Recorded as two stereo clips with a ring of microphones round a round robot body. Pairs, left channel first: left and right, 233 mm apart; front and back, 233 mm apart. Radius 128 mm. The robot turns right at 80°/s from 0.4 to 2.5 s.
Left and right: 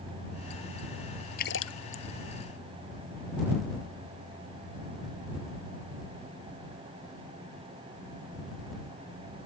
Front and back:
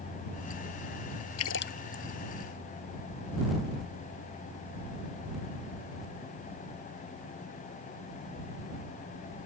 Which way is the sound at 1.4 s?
30° left.